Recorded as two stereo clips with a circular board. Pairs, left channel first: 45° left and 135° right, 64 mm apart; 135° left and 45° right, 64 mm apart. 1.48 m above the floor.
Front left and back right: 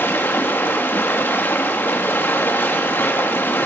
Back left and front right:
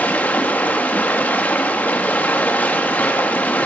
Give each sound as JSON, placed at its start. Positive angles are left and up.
{"t": 0.0, "sound": "running water", "azimuth_deg": 85, "distance_m": 1.1}